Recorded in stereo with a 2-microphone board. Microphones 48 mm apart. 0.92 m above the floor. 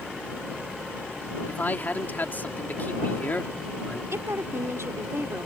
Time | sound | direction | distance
1.5 | a man speaking | 40° left (ahead or behind) | ?
4.1 | a woman speaking | 80° right | ?